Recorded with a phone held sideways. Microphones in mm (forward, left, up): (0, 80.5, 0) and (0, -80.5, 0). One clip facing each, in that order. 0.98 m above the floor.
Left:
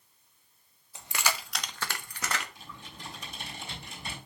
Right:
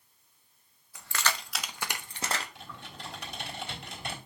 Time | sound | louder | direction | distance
0.9 | keys jangling | even | 25° left (ahead or behind) | 0.9 m
2.5 | typing on a keyboard | right 2 dB | 85° right | 3.5 m